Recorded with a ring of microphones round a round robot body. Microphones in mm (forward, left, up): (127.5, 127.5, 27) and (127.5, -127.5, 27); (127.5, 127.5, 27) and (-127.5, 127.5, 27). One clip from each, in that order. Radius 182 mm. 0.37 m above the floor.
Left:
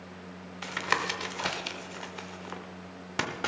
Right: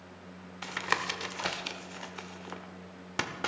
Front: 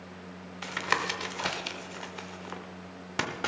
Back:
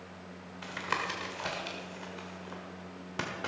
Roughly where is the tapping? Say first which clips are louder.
Left 2 dB, front 5 dB; ahead.